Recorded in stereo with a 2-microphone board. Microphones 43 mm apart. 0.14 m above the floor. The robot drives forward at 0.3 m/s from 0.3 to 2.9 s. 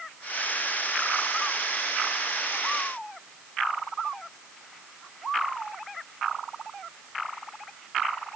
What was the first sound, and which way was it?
Only background noise.